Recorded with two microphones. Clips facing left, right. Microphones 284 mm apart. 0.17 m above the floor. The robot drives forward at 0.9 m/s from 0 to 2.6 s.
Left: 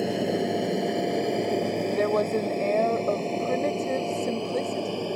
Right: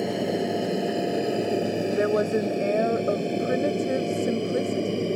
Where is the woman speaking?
15° right (ahead or behind).